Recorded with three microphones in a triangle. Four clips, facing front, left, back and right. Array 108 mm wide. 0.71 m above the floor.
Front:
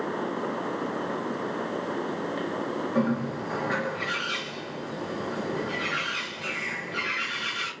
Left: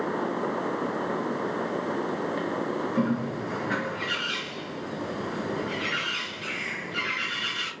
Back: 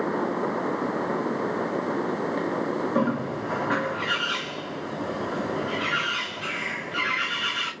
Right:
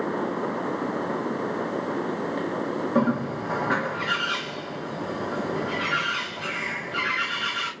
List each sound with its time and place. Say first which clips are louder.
3.0 s a bird: right 5 dB, front 1 dB; 110° right, 2.5 m